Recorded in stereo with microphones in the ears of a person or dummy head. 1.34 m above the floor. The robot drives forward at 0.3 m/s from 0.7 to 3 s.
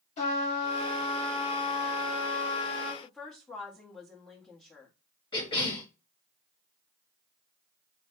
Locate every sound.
0.2 s a trumpet: 40° left (ahead or behind), 1.5 m; by 2.9 s 25° left (ahead or behind), 2 m
3.0 s a woman speaking: 10° left (ahead or behind), 1.1 m
5.3 s a cough: 30° left (ahead or behind), 1.6 m